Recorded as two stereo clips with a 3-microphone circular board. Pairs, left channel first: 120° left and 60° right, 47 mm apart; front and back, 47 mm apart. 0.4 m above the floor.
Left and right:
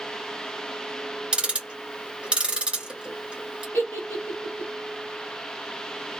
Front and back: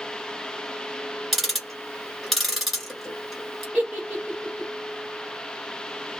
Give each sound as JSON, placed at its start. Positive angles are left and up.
{"t": 1.3, "sound": "ticking", "azimuth_deg": -85, "distance_m": 1.5}
{"t": 3.7, "sound": "a giggle", "azimuth_deg": 130, "distance_m": 1.2}